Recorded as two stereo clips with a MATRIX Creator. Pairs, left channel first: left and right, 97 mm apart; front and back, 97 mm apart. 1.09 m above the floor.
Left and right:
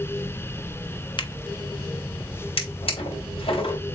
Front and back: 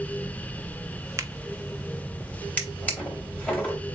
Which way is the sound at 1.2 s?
120° left.